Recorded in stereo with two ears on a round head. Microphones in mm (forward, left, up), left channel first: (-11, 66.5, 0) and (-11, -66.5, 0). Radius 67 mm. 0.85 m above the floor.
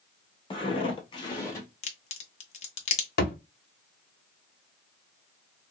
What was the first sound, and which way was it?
Footsteps, 30° left (ahead or behind).